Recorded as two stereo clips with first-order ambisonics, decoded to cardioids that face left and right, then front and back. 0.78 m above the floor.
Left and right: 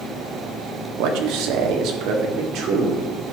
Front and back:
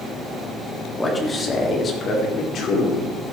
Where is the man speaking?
80° right, 1.6 m; by 3.0 s 50° right, 2.5 m.